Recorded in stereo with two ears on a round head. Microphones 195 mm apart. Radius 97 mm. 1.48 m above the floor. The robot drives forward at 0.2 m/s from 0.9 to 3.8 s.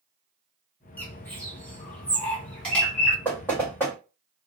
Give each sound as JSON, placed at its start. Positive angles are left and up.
{"t": 1.0, "sound": "a bird", "side_deg": 10, "distance_m": 0.5}
{"t": 3.2, "sound": "knocking", "side_deg": 10, "distance_m": 1.5}